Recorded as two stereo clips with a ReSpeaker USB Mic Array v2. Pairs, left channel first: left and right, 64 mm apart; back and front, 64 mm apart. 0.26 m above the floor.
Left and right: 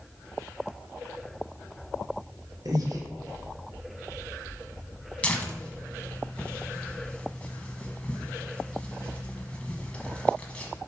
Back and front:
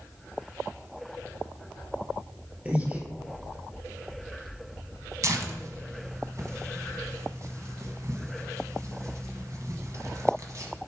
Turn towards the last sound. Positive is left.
turn(degrees=25)